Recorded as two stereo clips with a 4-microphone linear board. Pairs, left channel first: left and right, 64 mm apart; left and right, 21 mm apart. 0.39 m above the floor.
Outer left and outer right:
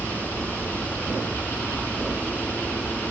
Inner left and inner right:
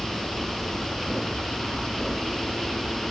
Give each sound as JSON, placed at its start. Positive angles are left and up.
{"t": 0.0, "sound": "an aircraft", "side_deg": 0}